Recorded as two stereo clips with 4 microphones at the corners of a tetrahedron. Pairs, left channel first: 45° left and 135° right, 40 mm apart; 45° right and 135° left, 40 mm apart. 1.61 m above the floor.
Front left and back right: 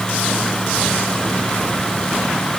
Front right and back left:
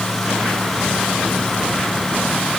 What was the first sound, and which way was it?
Only background noise.